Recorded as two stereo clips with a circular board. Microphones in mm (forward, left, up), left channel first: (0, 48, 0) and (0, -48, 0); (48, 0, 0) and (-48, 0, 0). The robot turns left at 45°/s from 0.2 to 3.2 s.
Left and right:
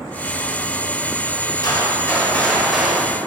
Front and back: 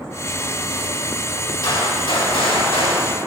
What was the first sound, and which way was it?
A gunshot, 45° left.